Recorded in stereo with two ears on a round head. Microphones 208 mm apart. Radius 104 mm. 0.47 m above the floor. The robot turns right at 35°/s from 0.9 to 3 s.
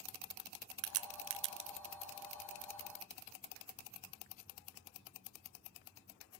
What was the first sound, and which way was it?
A crack, 70° right (ahead or behind).